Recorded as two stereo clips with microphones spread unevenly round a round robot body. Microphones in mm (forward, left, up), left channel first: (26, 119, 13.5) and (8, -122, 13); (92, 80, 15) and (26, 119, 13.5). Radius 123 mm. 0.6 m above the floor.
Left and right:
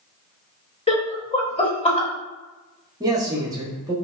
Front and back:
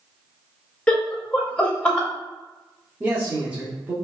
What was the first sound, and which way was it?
Laughter, 40° left.